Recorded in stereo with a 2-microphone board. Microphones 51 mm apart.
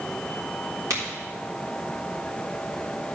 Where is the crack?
75° right (ahead or behind), 3.5 m.